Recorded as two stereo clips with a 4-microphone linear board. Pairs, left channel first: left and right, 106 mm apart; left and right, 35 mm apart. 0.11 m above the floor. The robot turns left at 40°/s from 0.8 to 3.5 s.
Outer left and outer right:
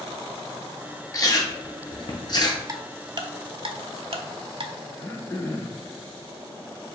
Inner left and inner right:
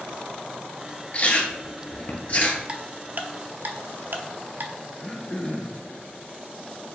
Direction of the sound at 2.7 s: 30° right (ahead or behind).